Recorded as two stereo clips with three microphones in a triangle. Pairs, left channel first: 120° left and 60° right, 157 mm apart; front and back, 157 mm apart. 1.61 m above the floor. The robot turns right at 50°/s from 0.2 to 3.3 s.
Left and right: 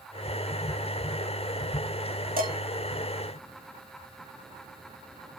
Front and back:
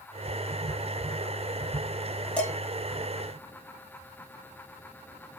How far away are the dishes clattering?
About 2.5 m.